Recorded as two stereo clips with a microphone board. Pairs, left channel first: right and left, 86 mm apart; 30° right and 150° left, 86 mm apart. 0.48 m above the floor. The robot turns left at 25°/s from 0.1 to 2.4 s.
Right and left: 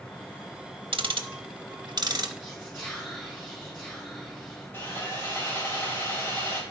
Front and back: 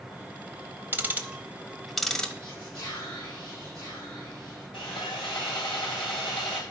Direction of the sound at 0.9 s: 85° left.